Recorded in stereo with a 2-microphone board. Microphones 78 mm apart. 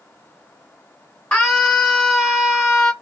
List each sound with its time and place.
1.3 s a scream: 20° left (ahead or behind), 1.5 m